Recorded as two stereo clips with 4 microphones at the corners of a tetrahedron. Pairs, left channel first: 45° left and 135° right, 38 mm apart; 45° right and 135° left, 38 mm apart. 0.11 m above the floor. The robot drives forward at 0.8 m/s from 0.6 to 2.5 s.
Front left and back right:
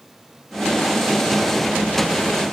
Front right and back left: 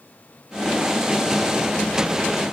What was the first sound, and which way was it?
Only background noise.